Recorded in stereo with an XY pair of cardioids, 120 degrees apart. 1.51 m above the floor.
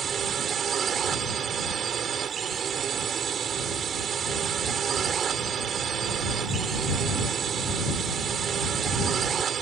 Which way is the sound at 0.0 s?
45° right.